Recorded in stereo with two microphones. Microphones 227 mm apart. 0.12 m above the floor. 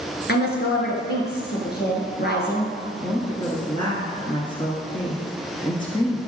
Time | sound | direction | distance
0.3 | a woman speaking | 45° left (ahead or behind) | 1.5 m
3.0 | a woman speaking | 20° left (ahead or behind) | 1.3 m